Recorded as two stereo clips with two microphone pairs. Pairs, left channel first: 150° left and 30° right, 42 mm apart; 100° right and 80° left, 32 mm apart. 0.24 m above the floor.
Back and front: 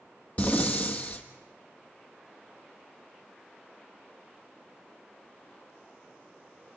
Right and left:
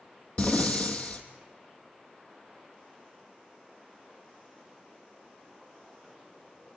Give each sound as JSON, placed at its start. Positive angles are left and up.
{"t": 0.4, "sound": "breathing", "azimuth_deg": -150, "distance_m": 1.8}